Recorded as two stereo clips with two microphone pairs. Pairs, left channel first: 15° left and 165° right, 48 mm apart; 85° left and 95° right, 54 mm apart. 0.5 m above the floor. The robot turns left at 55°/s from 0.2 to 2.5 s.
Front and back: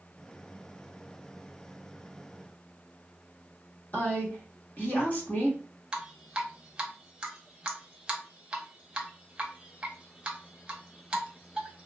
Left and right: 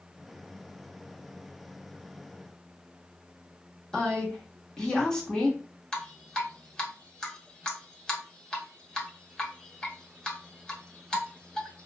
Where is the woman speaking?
10° left, 1.1 m.